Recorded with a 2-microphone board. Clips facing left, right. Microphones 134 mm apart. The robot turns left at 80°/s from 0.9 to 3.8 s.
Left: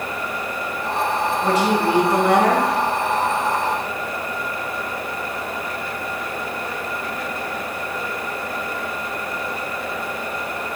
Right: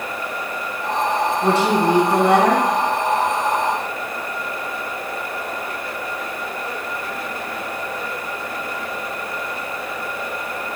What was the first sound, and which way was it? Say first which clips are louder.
A woman speaking: right 1 dB; 60° right.